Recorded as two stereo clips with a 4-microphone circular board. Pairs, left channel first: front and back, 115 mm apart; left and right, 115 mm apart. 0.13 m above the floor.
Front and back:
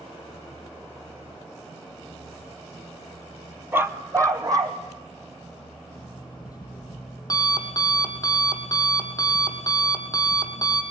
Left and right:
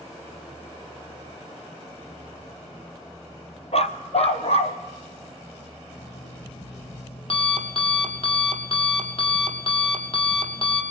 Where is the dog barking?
110° left, 1.0 m; by 4.8 s 120° left, 2.5 m.